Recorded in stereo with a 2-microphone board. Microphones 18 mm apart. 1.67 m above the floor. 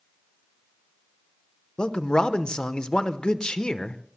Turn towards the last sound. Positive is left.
turn(degrees=55)  # may be behind; listen again after turning